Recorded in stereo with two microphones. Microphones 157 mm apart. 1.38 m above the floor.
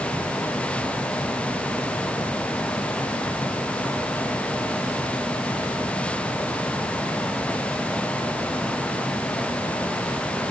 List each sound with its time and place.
Only background noise.